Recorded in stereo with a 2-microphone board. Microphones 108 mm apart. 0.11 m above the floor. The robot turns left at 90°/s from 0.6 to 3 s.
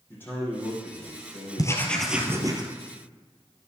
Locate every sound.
0.1 s a man speaking: 160° left, 5.5 m; by 2.6 s 20° right, 5.5 m
1.6 s writing: 40° left, 1.9 m; by 2.6 s 55° right, 1.9 m